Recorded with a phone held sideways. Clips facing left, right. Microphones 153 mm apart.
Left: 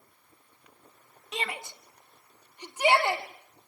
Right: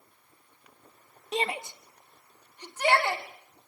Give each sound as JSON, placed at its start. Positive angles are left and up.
{"t": 1.3, "sound": "a shout", "side_deg": -35, "distance_m": 1.6}